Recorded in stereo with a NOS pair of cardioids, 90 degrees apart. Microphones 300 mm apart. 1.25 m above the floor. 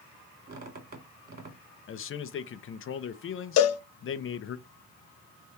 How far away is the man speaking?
About 0.7 m.